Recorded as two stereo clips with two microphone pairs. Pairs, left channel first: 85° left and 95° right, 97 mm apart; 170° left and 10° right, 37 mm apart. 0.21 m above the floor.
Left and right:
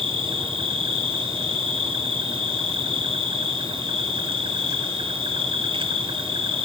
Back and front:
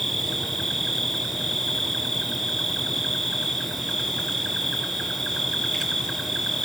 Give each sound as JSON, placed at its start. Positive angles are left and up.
{"t": 0.0, "sound": "an insect", "azimuth_deg": -110, "distance_m": 0.9}